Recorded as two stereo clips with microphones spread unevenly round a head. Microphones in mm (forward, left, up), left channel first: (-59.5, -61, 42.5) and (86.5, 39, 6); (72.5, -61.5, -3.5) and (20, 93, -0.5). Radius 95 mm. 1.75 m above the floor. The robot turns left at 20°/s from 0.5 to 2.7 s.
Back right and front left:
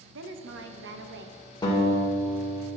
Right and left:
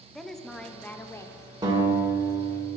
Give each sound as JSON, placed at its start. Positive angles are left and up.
{"t": 0.1, "sound": "a woman speaking", "azimuth_deg": 15, "distance_m": 0.7}
{"t": 1.6, "sound": "a guitar", "azimuth_deg": 165, "distance_m": 1.8}